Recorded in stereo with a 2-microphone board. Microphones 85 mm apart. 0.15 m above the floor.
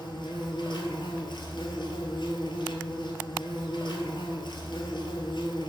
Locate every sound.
0.0 s an insect: 65° left (ahead or behind), 1.5 m